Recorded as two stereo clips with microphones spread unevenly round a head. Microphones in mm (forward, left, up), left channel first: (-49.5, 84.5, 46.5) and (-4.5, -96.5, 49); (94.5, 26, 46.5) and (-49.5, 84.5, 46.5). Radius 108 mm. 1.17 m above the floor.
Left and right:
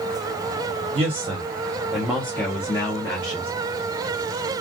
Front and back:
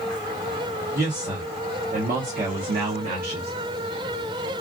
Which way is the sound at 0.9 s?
130° right.